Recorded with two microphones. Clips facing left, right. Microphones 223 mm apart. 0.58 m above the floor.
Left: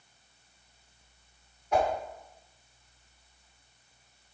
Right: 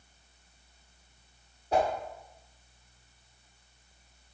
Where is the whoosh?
30° right (ahead or behind), 2 m.